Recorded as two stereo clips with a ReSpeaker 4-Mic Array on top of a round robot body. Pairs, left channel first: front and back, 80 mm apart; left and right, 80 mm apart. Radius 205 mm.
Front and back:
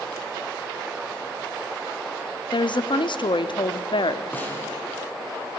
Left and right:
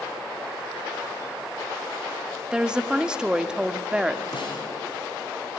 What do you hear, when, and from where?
2.5 s a woman speaking: 10° right, 1.5 m
4.3 s a snare drum: 70° left, 5.5 m